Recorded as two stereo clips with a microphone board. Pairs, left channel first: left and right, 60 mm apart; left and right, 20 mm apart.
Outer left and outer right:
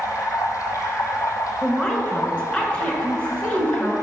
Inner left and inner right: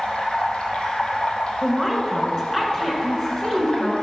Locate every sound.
0.0 s running water: 60° left (ahead or behind), 1.0 m
1.6 s a woman speaking: 20° left (ahead or behind), 1.4 m